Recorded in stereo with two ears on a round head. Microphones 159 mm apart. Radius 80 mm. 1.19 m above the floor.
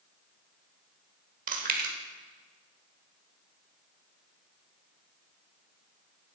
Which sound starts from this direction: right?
Chewing, at 1.5 s.